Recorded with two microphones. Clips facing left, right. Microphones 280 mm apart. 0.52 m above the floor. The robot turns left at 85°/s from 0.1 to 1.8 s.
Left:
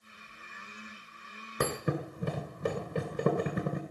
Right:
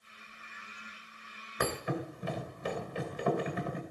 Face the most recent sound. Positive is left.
turn(degrees=55)  # may be behind; listen again after turning